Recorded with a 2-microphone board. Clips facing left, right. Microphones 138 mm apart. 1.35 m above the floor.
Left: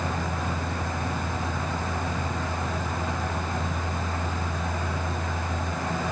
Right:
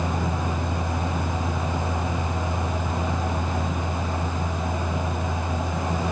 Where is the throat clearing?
I don't hear throat clearing.